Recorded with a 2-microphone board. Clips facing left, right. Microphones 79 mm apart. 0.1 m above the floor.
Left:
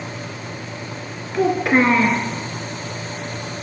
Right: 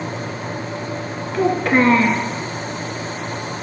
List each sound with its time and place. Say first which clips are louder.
1.3 s a child speaking: even; 5° left (ahead or behind), 0.8 m